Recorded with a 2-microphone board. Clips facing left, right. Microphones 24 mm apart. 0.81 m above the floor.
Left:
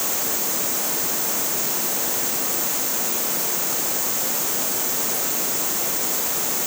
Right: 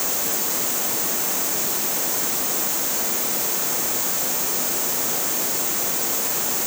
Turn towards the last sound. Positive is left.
No sound to turn to.